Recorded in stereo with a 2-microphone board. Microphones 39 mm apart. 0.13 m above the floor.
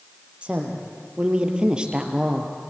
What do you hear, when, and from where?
0.4 s a woman speaking: 30° right (ahead or behind), 3.5 m; by 2.5 s 15° right (ahead or behind), 2.5 m